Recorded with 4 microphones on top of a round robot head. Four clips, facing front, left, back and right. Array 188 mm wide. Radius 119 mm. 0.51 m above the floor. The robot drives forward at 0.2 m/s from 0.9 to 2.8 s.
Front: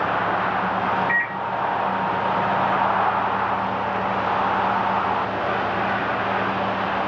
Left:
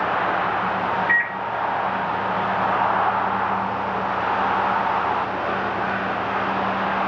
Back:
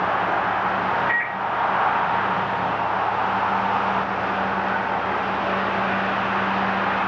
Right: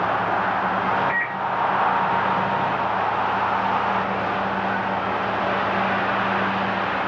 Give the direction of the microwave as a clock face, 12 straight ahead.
8 o'clock.